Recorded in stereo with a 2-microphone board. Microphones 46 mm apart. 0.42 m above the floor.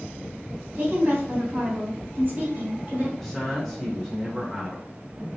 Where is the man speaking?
5° left (ahead or behind), 0.9 m.